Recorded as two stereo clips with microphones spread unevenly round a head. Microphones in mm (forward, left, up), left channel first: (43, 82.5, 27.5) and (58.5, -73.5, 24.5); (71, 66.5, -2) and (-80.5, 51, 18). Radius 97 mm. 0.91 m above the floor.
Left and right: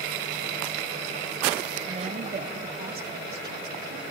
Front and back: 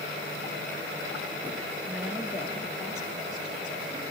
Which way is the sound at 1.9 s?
85° right.